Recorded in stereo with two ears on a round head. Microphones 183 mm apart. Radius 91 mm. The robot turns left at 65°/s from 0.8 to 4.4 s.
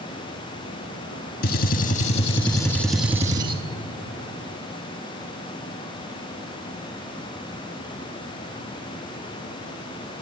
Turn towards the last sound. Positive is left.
turn(degrees=-95)